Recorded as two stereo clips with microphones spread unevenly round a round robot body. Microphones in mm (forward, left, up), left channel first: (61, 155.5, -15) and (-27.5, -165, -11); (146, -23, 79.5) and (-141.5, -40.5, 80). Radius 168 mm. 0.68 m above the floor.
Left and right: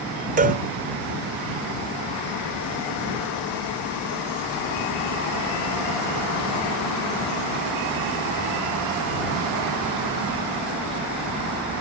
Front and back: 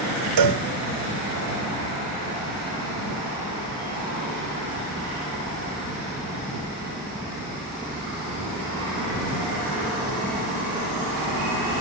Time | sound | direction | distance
0.4 | a cowbell | 175° right | ?